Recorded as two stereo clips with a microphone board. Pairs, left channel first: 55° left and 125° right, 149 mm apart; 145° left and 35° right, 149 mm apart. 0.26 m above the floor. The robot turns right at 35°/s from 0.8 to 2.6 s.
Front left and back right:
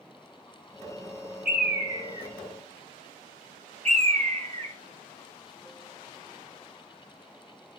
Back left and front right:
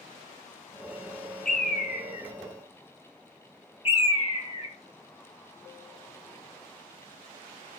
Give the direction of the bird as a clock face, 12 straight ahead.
7 o'clock.